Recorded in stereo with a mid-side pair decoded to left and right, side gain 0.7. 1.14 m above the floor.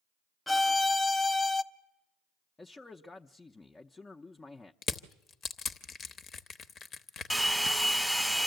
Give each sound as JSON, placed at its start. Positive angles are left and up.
{"t": 0.5, "sound": "a violin", "azimuth_deg": 10, "distance_m": 0.6}
{"t": 2.6, "sound": "a man speaking", "azimuth_deg": 15, "distance_m": 0.6}
{"t": 4.8, "sound": "crushing", "azimuth_deg": 35, "distance_m": 0.9}
{"t": 7.3, "sound": "a hair dryer", "azimuth_deg": 0, "distance_m": 1.2}